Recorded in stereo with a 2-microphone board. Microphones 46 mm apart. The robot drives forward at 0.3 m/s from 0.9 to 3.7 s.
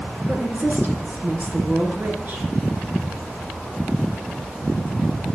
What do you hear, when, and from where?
0.3 s a woman speaking: 50° right (ahead or behind), 1.6 m; by 2.5 s 45° right (ahead or behind), 1.8 m